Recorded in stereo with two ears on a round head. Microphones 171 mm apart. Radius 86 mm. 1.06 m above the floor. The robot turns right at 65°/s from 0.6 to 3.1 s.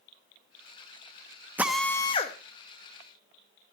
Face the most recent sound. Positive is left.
turn(degrees=90)